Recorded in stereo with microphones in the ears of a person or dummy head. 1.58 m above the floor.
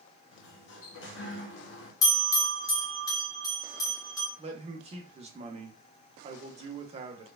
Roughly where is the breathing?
I don't hear breathing.